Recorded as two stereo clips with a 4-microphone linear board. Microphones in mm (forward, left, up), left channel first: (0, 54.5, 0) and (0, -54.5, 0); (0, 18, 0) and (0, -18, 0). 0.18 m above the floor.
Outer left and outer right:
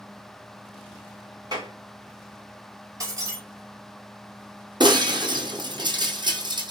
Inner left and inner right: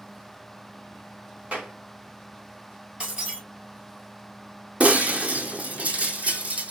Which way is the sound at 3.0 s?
30° right (ahead or behind).